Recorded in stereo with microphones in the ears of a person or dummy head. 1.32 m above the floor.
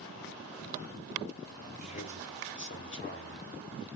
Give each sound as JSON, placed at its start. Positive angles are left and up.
{"t": 1.8, "sound": "a man speaking", "side_deg": 40, "distance_m": 1.2}